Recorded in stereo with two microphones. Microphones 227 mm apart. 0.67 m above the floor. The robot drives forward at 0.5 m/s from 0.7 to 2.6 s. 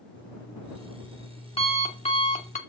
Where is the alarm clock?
20° left (ahead or behind), 2.5 m; by 2.6 s 35° left (ahead or behind), 1.8 m.